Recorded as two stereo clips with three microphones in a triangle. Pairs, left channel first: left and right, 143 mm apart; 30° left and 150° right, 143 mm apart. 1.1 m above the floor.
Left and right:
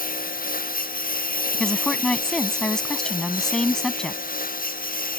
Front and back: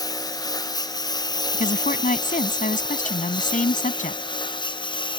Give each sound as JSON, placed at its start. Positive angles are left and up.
{"t": 0.0, "sound": "a lawn mower", "azimuth_deg": 95}
{"t": 1.5, "sound": "a woman speaking", "azimuth_deg": 5}